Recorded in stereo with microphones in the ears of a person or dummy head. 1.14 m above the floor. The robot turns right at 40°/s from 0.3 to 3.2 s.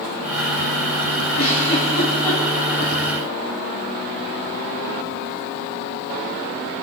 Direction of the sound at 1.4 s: 50° left (ahead or behind).